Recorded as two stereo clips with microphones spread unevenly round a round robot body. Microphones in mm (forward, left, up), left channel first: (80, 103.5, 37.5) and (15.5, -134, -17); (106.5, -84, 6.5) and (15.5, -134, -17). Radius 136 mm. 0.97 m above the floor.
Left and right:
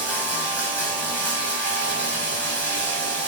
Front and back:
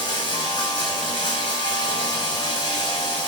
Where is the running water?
5° right, 5 m.